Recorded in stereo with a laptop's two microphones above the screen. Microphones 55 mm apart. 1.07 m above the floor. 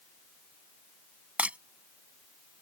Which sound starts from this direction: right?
Breaking glass, at 1.4 s.